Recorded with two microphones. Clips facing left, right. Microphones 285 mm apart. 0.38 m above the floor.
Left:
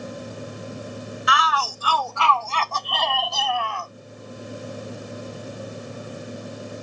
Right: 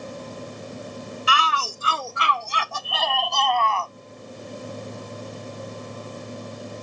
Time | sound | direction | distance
1.3 | a shout | 35° right (ahead or behind) | ?